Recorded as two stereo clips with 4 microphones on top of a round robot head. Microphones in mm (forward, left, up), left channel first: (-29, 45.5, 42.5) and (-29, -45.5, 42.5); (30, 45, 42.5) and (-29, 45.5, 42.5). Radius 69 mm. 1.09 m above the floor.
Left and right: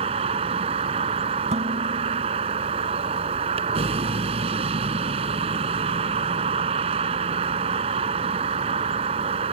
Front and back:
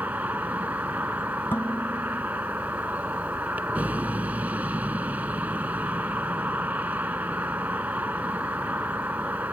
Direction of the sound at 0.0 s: 105° right.